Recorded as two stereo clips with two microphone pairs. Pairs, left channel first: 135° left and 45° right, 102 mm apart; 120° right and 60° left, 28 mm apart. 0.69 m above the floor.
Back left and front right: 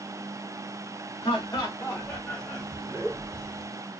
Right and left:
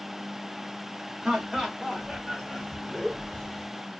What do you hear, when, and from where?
1.2 s laughter: 120° left, 1.4 m; by 3.6 s 65° right, 1.4 m